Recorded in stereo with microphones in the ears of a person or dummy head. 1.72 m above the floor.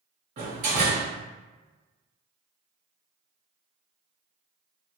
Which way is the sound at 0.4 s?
40° right (ahead or behind).